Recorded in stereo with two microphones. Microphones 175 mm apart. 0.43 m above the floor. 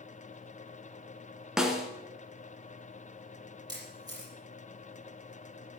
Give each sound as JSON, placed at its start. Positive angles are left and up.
{"t": 1.6, "sound": "a snare drum", "side_deg": -5, "distance_m": 1.8}
{"t": 3.7, "sound": "a camera shutter", "side_deg": -25, "distance_m": 5.5}